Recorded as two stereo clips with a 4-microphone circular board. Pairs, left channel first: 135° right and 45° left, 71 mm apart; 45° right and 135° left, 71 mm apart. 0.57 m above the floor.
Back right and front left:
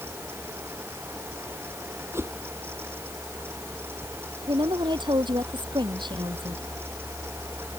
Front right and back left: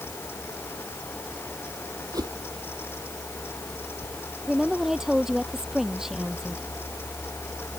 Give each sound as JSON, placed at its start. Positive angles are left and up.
{"t": 2.1, "sound": "a whoosh", "azimuth_deg": 100}
{"t": 4.5, "sound": "a woman speaking", "azimuth_deg": 50}